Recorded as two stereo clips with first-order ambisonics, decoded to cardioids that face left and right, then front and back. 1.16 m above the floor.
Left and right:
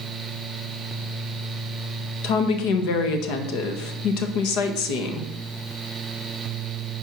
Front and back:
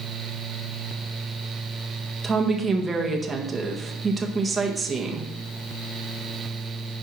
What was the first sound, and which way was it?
A woman speaking, 100° left.